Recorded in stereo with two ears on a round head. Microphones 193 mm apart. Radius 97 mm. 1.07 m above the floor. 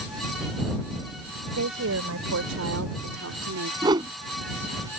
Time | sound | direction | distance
1.5 | a woman speaking | 75° right (ahead or behind) | ?
3.8 | a whoosh | 20° right (ahead or behind) | ?